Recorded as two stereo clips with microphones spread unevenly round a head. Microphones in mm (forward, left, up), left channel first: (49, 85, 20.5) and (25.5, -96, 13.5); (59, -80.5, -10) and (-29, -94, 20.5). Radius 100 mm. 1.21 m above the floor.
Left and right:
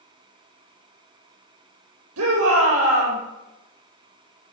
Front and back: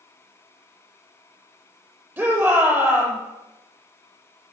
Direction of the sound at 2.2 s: 105° right.